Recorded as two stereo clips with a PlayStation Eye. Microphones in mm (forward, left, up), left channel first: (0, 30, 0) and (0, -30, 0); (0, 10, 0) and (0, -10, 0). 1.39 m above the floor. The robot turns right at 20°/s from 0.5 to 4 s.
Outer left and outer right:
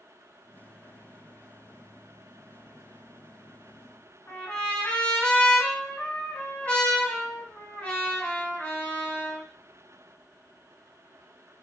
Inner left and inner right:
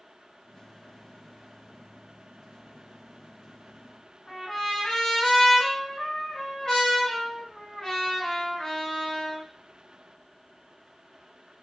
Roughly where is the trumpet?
Left.